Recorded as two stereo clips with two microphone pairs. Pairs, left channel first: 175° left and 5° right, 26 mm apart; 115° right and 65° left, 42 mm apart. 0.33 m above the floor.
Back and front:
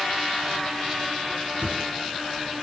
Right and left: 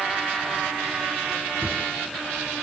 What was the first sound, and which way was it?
A whoosh, 35° left.